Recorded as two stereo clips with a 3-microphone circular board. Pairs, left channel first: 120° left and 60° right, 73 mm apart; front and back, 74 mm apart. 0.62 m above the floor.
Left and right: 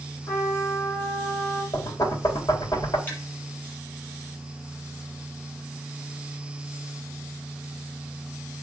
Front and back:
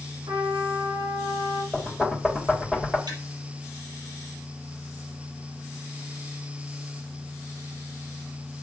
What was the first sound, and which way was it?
A trumpet, 170° left.